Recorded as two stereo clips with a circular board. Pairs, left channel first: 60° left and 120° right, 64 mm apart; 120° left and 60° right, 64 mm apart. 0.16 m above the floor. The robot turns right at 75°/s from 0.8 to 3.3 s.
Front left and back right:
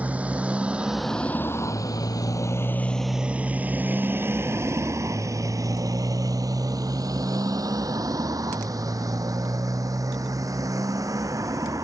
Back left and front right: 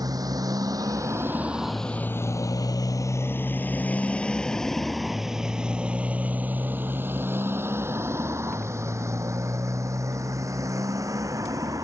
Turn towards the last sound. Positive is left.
turn(degrees=-90)